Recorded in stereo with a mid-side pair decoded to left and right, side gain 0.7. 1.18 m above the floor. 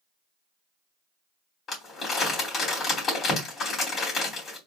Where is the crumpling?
40° left, 3 m.